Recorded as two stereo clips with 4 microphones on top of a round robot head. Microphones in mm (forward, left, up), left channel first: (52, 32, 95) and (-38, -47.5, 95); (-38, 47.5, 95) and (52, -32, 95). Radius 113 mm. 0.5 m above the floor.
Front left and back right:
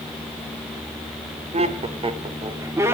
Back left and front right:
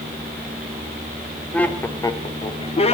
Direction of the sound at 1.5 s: 140° right.